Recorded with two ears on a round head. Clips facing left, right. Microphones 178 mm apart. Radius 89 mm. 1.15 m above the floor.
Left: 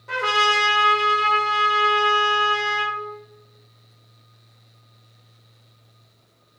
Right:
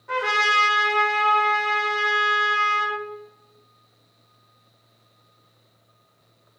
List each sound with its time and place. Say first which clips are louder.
0.1 s a trumpet: left 2 dB; 40° left (ahead or behind), 0.9 m